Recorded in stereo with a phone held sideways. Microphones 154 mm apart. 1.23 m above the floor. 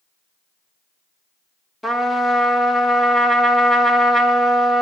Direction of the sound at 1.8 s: Centre (ahead or behind).